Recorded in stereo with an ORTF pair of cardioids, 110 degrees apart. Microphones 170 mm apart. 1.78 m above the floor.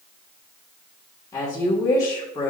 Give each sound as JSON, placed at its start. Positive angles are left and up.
{"t": 1.3, "sound": "a woman speaking", "azimuth_deg": 20, "distance_m": 2.0}